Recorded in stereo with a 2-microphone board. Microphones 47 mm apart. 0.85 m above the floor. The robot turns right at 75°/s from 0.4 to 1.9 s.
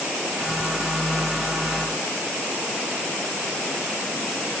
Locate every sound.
Only background noise.